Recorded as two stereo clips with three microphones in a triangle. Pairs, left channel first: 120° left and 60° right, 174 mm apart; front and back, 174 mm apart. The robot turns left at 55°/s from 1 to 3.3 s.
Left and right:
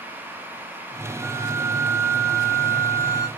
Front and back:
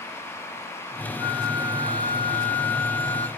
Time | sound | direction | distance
1.2 | a flute | 40° right | 1.3 m